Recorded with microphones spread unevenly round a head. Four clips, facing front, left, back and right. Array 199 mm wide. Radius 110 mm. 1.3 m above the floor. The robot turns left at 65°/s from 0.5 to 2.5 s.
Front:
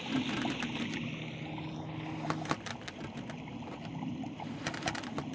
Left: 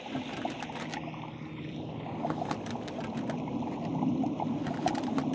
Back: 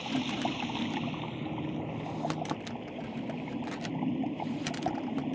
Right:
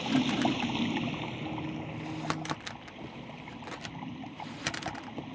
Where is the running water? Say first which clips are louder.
Right 8 dB, back 2 dB; 110° right; by 5.3 s 120° left.